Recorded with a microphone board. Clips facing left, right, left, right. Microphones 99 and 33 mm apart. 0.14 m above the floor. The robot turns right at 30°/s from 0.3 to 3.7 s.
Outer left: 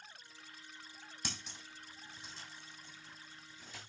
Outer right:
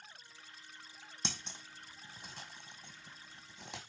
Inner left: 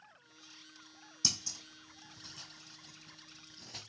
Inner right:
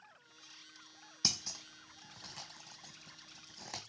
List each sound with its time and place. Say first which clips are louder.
1.2 s scissors: outer right 3 dB, even; 25° right (ahead or behind), 1.0 m; by 3.8 s 80° right, 1.0 m